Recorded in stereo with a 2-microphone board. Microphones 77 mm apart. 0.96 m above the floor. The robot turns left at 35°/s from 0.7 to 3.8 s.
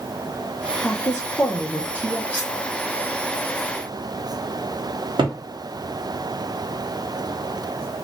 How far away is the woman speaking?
About 0.6 m.